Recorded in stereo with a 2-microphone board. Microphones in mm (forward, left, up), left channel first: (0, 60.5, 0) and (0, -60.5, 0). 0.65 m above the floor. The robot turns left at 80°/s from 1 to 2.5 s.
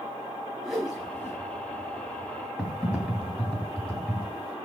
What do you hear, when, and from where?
0.6 s a whoosh: centre (ahead or behind), 4.5 m; by 1.4 s 30° left (ahead or behind), 4.5 m
2.6 s typing on a keyboard: 5° left (ahead or behind), 2.5 m